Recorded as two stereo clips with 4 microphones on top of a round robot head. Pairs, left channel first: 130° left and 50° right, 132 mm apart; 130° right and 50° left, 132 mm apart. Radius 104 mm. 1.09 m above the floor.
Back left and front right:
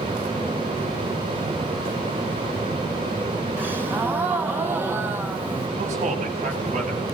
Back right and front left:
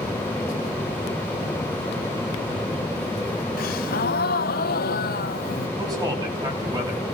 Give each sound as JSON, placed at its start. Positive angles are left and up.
{"t": 3.6, "sound": "a gasp", "azimuth_deg": -125, "distance_m": 1.9}
{"t": 5.8, "sound": "a man speaking", "azimuth_deg": -15, "distance_m": 9.0}